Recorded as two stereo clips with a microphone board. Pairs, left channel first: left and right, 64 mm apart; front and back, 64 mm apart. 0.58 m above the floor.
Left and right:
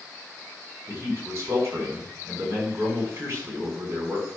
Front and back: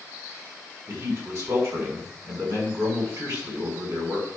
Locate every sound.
0.9 s a man speaking: 140° right, 6 m